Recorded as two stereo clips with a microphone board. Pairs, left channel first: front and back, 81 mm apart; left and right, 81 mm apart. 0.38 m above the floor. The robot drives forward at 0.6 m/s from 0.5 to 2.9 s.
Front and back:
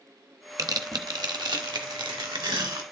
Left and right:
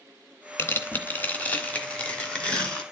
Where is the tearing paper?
145° left, 0.8 m; by 2.8 s 170° left, 2 m.